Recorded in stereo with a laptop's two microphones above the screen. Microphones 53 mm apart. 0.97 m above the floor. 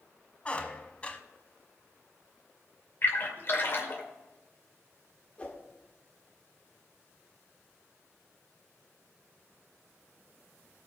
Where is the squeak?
20° left (ahead or behind), 1.1 m.